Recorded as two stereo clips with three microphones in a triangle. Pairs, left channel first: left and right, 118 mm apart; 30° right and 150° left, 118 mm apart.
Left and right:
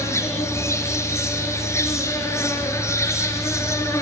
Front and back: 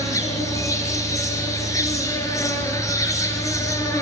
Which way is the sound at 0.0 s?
30° left.